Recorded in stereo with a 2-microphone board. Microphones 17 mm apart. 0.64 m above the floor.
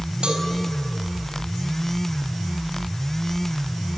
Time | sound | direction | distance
0.2 | a cowbell | 75° right (ahead or behind) | 4.5 m